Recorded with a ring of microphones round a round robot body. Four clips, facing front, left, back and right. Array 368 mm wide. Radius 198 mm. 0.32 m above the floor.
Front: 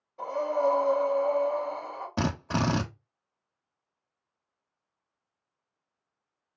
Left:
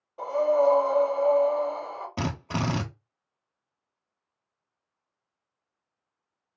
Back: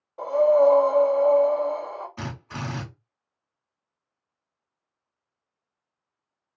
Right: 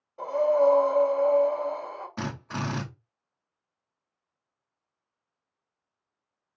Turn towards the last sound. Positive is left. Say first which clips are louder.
# left 4 dB, front 7 dB
turn(degrees=20)